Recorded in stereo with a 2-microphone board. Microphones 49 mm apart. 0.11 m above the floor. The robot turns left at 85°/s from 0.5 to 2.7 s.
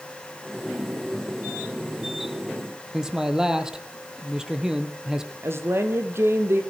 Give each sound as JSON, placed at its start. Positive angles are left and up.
{"t": 2.9, "sound": "a man speaking", "side_deg": -10, "distance_m": 3.0}
{"t": 5.4, "sound": "a woman speaking", "side_deg": -60, "distance_m": 3.5}